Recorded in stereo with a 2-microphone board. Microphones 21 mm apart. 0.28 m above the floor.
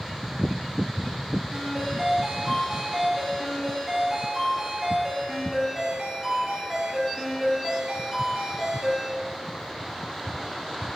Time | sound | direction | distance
1.5 | a ringtone | 15° right (ahead or behind) | 3 m